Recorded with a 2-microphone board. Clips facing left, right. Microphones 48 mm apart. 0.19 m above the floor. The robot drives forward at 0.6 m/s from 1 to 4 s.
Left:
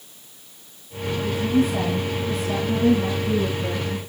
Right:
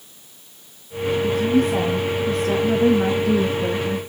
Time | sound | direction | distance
1.2 | a woman speaking | 45° right (ahead or behind) | 2.5 m